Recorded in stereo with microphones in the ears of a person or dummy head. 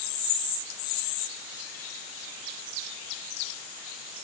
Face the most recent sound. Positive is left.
No sound to turn to.